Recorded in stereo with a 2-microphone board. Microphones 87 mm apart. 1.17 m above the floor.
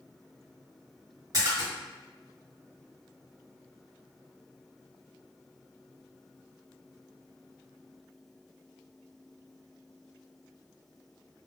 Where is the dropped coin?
I don't hear a dropped coin.